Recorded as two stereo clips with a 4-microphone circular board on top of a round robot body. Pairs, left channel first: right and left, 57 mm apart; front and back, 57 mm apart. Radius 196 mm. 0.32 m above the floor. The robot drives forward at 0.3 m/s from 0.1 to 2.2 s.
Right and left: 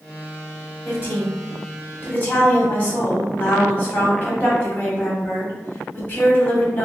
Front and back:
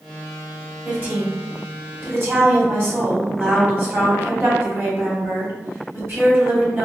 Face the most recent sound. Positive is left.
turn(degrees=-145)